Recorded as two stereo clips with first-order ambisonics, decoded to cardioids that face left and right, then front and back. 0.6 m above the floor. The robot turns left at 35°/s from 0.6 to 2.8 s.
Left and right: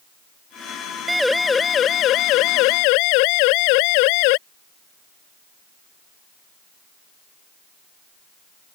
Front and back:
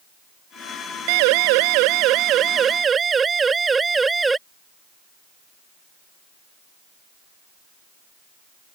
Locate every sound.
1.1 s a siren: 175° right; by 4.4 s 100° left